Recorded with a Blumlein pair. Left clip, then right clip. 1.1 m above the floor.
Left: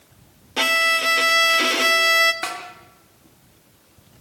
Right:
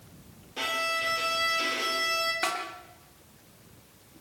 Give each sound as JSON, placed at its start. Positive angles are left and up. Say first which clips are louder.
{"t": 0.6, "sound": "a violin", "louder": "left 11 dB", "azimuth_deg": 30, "distance_m": 1.7}
{"t": 2.4, "sound": "a snare drum", "louder": "left 1 dB", "azimuth_deg": 5, "distance_m": 3.5}